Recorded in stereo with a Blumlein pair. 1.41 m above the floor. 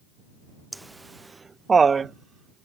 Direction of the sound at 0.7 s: 5° right.